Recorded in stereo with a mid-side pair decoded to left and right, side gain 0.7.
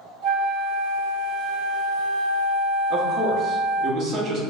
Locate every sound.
0.2 s a flute: 70° right, 1.4 m
2.9 s a man speaking: 45° right, 1.2 m